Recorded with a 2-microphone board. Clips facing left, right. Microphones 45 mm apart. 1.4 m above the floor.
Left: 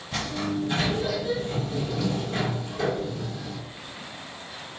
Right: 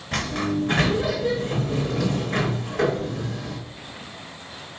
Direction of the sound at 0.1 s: 60° right (ahead or behind).